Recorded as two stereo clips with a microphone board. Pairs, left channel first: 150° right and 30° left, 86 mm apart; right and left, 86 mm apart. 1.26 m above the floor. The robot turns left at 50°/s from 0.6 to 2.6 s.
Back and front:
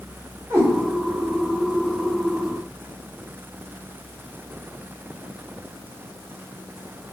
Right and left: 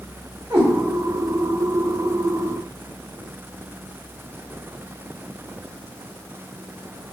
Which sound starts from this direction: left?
A cat meowing, at 0.5 s.